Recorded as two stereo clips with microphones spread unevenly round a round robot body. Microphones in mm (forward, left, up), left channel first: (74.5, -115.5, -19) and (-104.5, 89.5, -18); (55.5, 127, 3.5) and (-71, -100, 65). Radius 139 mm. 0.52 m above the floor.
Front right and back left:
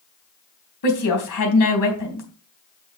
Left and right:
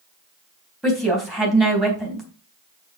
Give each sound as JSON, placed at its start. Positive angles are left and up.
{"t": 0.8, "sound": "a woman speaking", "azimuth_deg": -25, "distance_m": 3.5}